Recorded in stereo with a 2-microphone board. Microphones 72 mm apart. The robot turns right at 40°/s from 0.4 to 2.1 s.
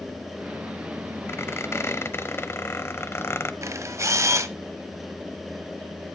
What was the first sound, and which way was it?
A squeak, 75° left.